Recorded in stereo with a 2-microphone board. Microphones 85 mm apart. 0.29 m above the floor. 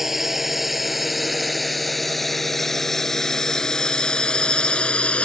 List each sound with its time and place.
0.0 s a drone: 5° right (ahead or behind); by 5.2 s 15° left (ahead or behind)